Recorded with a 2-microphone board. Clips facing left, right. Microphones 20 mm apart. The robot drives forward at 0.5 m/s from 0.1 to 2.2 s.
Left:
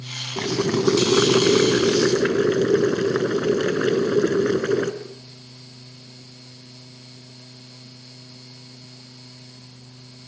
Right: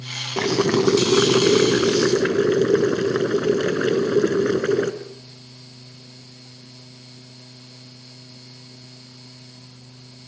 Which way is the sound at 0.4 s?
30° right (ahead or behind).